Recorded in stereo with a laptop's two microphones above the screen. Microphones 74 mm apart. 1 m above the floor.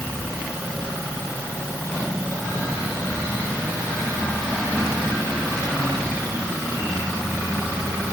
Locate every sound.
Only background noise.